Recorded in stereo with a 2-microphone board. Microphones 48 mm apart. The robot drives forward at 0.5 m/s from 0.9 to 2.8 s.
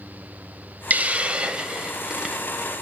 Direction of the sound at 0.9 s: 35° right (ahead or behind).